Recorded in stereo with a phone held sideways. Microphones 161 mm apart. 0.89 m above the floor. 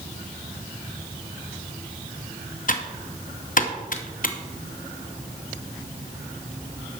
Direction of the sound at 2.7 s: 55° left (ahead or behind).